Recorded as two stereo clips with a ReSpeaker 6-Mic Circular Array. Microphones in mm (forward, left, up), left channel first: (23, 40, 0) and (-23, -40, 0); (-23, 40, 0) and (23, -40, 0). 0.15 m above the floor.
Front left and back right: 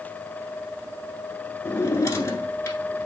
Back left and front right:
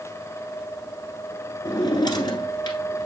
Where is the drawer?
110° left, 1.2 m.